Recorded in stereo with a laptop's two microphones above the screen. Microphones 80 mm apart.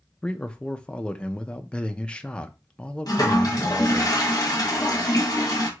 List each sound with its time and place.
0.2 s a man speaking: 10° left (ahead or behind), 0.6 m
3.1 s a toilet flushing: 45° left (ahead or behind), 1.3 m